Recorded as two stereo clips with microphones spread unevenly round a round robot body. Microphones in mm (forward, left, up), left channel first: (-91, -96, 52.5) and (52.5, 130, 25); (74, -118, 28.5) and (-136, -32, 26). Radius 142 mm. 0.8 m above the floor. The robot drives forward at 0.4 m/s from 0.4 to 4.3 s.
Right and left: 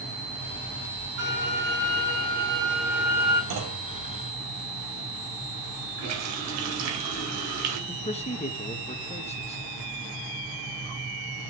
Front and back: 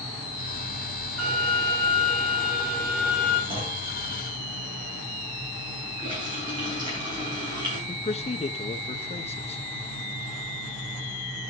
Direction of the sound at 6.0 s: 85° left.